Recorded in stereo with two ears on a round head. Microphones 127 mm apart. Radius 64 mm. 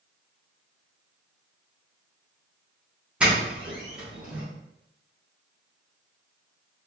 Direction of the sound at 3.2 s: 10° right (ahead or behind).